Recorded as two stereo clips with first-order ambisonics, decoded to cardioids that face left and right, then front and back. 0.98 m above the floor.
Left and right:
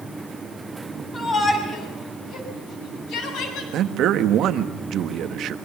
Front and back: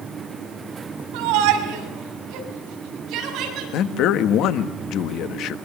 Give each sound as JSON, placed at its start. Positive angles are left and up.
{"t": 1.1, "sound": "a shout", "azimuth_deg": 160, "distance_m": 6.5}
{"t": 3.7, "sound": "a man speaking", "azimuth_deg": -40, "distance_m": 1.3}